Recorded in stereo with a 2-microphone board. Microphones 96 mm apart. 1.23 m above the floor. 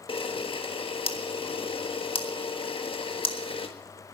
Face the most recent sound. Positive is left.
turn(degrees=80)